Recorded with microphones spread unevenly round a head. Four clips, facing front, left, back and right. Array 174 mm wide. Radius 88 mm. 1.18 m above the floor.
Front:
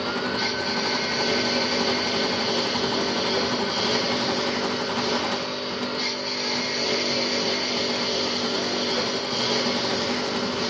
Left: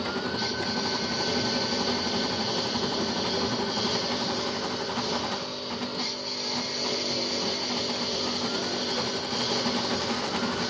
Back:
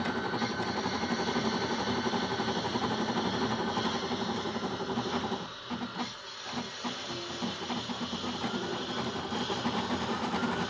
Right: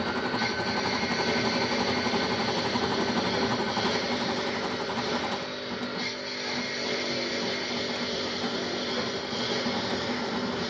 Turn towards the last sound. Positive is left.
turn(degrees=5)